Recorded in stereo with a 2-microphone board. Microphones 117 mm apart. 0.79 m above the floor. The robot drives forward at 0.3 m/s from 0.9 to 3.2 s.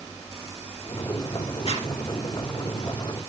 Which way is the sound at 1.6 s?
55° left (ahead or behind).